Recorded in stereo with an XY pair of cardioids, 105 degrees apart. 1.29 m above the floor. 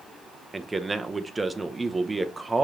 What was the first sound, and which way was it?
A man speaking, 15° right.